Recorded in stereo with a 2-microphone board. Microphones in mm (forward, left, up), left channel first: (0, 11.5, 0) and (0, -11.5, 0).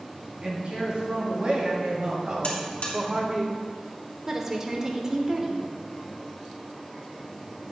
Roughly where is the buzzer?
Left.